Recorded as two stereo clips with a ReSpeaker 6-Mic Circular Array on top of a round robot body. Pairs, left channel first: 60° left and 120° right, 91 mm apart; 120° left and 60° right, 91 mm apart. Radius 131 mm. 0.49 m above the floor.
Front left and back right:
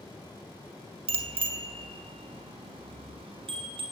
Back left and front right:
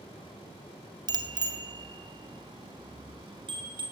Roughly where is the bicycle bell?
Right.